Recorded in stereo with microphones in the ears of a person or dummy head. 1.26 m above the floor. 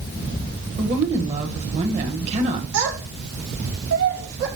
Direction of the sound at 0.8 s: 40° right (ahead or behind).